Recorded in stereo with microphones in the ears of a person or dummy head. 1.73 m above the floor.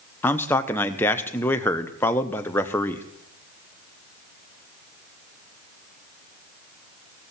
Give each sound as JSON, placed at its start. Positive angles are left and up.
{"t": 0.2, "sound": "a man speaking", "side_deg": 10, "distance_m": 1.0}